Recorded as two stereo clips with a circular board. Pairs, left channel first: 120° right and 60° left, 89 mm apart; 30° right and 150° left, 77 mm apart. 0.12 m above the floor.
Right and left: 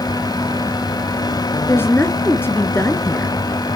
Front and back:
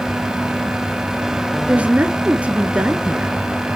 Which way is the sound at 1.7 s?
150° right.